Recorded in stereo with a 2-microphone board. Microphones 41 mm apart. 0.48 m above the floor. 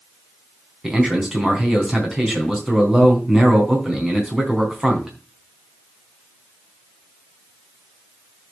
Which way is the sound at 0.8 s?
10° right (ahead or behind).